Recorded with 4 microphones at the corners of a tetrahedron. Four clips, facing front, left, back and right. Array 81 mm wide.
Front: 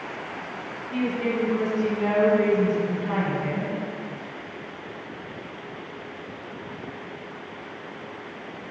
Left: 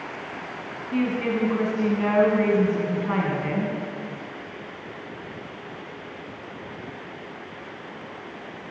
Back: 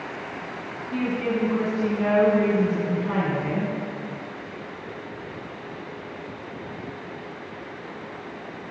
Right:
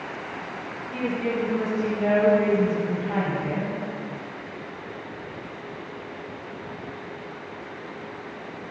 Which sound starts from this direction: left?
A woman speaking, at 0.9 s.